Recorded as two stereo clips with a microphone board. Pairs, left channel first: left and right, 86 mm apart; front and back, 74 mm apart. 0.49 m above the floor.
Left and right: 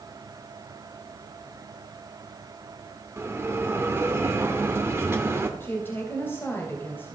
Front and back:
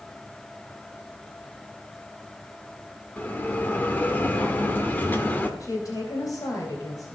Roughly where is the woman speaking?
Ahead left.